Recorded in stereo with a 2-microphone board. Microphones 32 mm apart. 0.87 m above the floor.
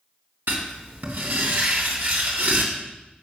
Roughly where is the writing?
Right.